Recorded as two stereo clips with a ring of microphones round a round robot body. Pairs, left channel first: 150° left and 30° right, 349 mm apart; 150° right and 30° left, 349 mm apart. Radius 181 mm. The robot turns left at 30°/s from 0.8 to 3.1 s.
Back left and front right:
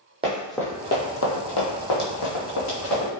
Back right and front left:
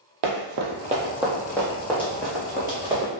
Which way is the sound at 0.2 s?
45° left.